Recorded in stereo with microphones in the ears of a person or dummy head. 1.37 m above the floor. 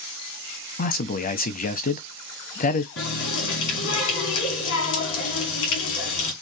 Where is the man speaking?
45° left (ahead or behind), 0.7 m.